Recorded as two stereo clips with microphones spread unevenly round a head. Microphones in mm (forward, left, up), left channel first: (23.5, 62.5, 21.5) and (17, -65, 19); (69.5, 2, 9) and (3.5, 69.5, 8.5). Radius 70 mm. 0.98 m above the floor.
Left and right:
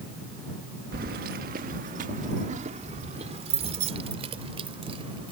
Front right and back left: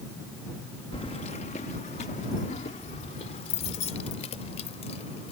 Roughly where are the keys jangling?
Right.